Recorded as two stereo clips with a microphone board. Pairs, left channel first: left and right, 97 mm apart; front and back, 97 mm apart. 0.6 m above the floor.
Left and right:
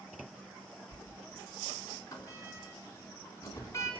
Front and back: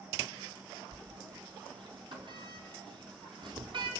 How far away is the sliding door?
About 4 m.